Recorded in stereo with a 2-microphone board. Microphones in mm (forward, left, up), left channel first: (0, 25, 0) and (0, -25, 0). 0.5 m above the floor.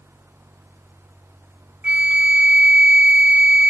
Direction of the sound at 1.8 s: 20° right (ahead or behind).